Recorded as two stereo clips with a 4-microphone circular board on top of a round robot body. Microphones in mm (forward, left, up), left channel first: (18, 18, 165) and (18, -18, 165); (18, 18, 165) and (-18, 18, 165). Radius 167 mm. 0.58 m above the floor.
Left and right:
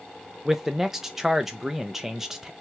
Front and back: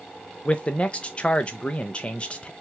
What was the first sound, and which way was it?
A man speaking, 20° right.